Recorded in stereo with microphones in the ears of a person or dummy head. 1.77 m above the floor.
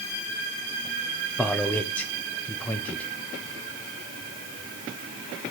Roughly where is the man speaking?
Centre.